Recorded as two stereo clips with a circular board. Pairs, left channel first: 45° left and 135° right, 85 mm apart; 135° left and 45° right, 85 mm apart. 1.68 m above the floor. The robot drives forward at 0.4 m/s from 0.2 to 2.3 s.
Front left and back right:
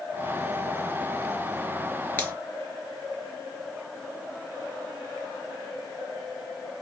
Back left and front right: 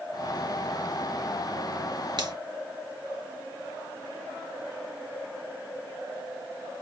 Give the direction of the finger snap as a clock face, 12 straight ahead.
1 o'clock.